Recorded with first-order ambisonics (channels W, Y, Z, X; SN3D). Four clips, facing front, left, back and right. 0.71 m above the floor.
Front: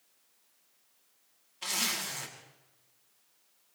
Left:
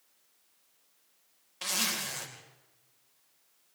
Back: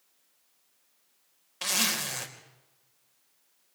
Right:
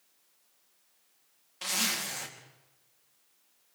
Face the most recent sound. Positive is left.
turn(degrees=175)